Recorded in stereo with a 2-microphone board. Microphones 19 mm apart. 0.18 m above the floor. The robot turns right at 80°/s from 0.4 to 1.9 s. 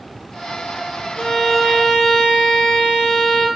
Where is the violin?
120° left, 2.5 m; by 3.5 s straight behind, 2.5 m.